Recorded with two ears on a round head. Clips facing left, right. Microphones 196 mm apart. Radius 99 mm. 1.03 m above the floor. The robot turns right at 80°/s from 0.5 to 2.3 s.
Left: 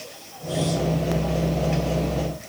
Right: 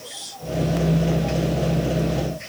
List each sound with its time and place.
Only background noise.